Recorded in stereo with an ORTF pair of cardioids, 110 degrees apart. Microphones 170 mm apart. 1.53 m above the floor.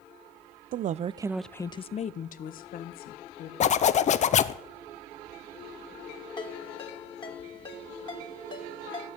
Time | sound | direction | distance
0.7 | a woman speaking | 55° right | 0.7 m
3.6 | a zipper | 45° left | 0.6 m
6.4 | a ringtone | 25° left | 2.5 m